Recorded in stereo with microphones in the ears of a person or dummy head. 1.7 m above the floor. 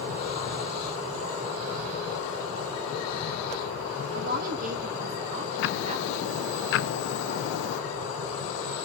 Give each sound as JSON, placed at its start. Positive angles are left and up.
{"t": 4.1, "sound": "a woman speaking", "side_deg": -55, "distance_m": 2.5}
{"t": 5.6, "sound": "ticking", "side_deg": 65, "distance_m": 0.5}